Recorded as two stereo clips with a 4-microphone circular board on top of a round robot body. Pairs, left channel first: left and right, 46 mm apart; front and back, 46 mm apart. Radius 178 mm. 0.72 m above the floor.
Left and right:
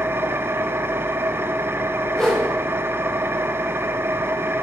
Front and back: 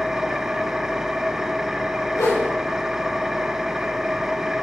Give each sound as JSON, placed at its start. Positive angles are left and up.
{"t": 0.0, "sound": "an engine running", "azimuth_deg": -100, "distance_m": 1.0}
{"t": 2.2, "sound": "a whoosh", "azimuth_deg": 10, "distance_m": 4.5}